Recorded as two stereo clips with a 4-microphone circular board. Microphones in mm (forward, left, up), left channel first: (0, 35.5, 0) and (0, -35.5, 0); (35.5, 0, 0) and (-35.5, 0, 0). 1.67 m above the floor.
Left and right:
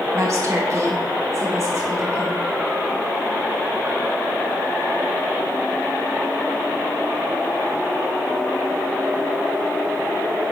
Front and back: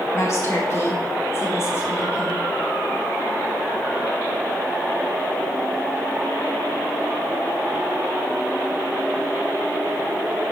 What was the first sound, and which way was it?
A woman speaking, 45° right.